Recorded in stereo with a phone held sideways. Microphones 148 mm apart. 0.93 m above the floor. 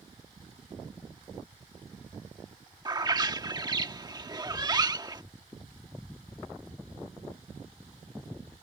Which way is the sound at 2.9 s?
30° right (ahead or behind).